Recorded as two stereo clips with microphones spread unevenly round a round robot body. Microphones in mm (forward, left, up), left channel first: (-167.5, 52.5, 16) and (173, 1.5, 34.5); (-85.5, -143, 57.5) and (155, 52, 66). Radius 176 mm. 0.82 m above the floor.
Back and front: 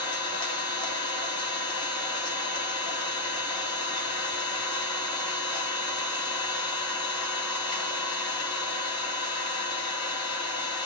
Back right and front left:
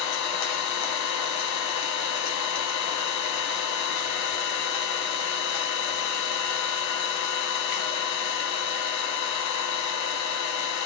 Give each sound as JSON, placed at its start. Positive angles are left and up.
{"t": 0.0, "sound": "an engine running", "azimuth_deg": -115, "distance_m": 1.9}